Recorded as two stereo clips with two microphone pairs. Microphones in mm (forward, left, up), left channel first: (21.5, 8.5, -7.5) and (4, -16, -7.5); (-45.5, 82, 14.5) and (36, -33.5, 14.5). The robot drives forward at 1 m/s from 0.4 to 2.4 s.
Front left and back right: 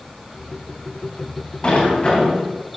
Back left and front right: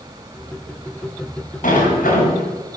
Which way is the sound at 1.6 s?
105° left.